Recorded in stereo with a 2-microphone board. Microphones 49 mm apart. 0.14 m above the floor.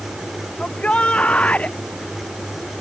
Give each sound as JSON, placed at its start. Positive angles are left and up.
{"t": 0.6, "sound": "a shout", "side_deg": 25}